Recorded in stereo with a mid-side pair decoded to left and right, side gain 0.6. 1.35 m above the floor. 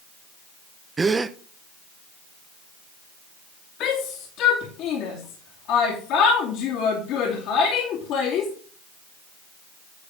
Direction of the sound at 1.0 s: 25° right.